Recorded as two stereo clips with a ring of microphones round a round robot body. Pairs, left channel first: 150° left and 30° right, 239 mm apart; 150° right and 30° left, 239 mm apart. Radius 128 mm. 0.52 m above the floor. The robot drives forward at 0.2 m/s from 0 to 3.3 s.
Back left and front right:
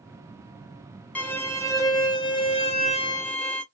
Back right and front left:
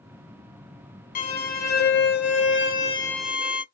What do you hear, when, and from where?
1.1 s a violin: 130° right, 0.8 m; by 3.6 s 155° right, 1.0 m